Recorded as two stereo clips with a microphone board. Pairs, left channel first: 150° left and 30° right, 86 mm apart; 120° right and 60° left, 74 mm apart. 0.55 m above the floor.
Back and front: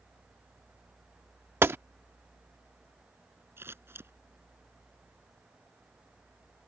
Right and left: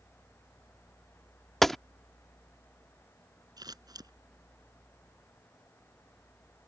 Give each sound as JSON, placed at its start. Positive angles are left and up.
{"t": 1.6, "sound": "a gunshot", "azimuth_deg": -40}
{"t": 3.6, "sound": "scissors", "azimuth_deg": 30}